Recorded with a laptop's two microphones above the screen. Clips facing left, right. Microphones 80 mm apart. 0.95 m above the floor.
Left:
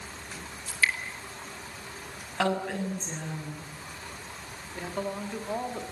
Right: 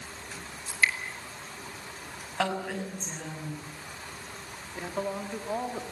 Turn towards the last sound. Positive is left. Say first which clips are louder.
# right 1 dB
turn(degrees=-5)  # may be behind; listen again after turning